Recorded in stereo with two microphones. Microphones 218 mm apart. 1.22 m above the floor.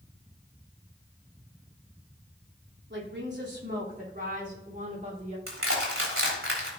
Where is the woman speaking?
60° right (ahead or behind), 3 m; by 5.4 s 30° right (ahead or behind), 4 m.